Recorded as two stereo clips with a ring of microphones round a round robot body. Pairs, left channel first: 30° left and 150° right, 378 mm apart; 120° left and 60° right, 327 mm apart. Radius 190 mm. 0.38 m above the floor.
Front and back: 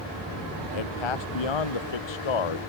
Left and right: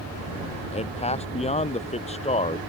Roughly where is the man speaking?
Ahead left.